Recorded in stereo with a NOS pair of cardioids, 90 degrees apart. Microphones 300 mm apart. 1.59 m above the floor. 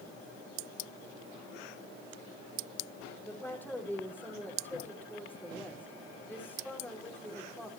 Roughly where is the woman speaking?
Ahead.